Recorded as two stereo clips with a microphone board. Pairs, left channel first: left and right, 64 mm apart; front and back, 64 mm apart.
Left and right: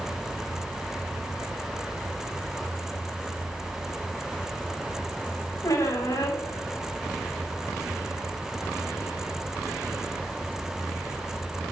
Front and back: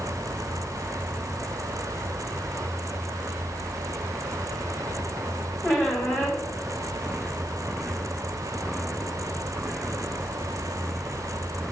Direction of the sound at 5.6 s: 70° left.